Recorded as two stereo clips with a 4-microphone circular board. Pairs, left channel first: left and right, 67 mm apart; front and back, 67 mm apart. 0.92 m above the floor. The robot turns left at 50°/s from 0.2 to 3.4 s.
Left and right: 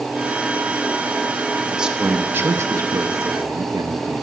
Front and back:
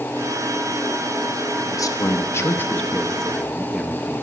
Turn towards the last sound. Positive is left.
turn(degrees=-95)